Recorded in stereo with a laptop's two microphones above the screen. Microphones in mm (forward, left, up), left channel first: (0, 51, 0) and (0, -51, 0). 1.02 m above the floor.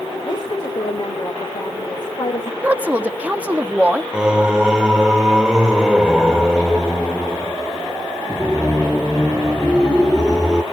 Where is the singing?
5° right (ahead or behind), 0.8 m.